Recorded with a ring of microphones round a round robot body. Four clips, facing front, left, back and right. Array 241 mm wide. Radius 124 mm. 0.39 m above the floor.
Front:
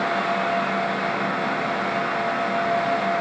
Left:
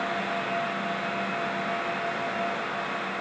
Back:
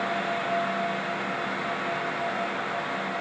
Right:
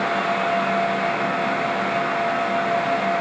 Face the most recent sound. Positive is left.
No sound to turn to.